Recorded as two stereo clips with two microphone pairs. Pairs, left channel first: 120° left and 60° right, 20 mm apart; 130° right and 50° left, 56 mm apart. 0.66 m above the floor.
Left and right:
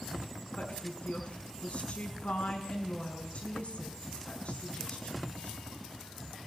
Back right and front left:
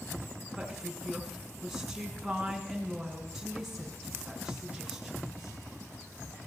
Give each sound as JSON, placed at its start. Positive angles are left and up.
{"t": 0.6, "sound": "a woman speaking", "azimuth_deg": 135, "distance_m": 6.0}